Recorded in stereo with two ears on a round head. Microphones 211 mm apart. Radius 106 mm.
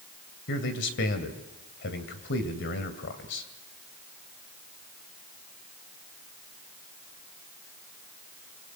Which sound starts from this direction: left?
A man speaking, at 0.5 s.